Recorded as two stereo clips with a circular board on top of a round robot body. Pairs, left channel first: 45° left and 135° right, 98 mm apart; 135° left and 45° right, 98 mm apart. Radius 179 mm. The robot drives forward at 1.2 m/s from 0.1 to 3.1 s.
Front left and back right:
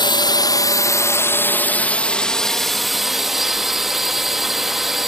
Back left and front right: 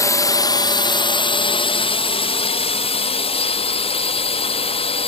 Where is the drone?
80° left; by 5.1 s 140° left.